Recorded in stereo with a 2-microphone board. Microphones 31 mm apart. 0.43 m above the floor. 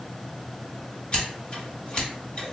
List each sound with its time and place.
1.1 s scissors: 30° left (ahead or behind), 1.6 m